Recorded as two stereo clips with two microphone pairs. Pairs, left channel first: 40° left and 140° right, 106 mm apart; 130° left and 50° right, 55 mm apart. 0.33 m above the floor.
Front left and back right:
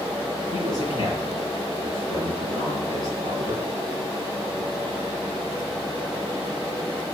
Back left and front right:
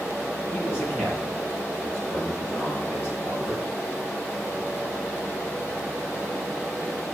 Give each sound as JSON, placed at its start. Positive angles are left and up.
{"t": 0.5, "sound": "a man speaking", "azimuth_deg": 90, "distance_m": 4.5}